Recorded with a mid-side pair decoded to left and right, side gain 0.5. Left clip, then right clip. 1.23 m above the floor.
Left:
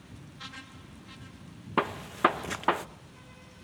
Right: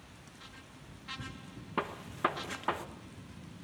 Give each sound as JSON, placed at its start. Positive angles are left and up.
{"t": 1.8, "sound": "a gunshot", "azimuth_deg": 40, "distance_m": 1.2}